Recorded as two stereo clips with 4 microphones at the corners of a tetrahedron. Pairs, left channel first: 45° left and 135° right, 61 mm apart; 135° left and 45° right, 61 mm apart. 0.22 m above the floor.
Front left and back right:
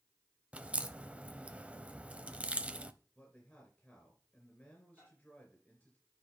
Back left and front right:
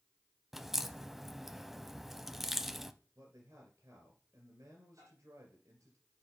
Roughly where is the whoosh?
No whoosh in this recording.